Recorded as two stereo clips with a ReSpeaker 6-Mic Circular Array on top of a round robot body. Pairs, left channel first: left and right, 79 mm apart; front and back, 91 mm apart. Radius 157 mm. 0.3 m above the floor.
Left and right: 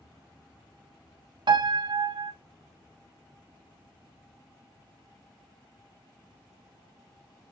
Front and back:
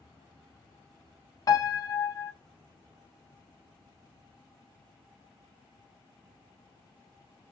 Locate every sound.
1.5 s a piano: 55° right, 0.5 m